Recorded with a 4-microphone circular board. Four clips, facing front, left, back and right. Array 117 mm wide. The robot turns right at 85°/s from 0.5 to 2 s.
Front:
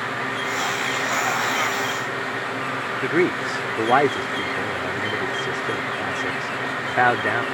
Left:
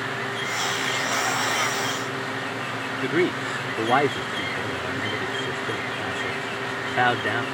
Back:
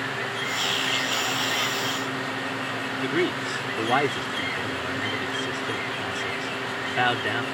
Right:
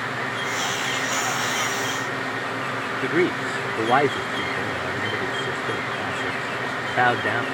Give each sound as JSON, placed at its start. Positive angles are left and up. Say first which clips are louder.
{"t": 3.0, "sound": "a man speaking", "louder": "right 1 dB, front 5 dB", "azimuth_deg": -10}